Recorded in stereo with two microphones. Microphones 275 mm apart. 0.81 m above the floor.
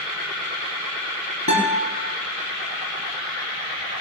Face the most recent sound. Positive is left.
turn(degrees=80)